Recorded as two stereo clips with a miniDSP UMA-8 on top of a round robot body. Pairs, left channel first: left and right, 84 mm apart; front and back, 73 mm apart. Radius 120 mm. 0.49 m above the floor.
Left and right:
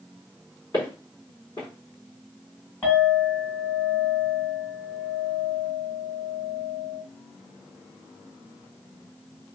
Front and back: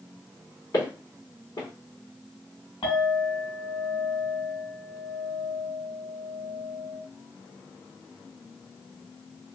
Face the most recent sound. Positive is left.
turn(degrees=25)